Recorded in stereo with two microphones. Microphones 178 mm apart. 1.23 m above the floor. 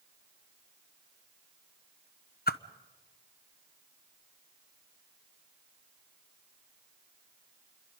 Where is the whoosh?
60° left (ahead or behind), 0.7 m.